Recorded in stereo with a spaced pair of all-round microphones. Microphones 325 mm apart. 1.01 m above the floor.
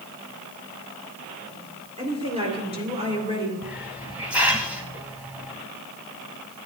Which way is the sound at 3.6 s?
5° right (ahead or behind).